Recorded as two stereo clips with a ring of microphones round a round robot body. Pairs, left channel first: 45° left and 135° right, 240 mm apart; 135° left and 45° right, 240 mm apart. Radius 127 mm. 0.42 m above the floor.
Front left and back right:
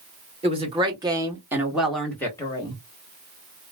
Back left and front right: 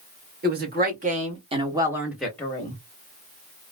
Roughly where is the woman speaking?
Right.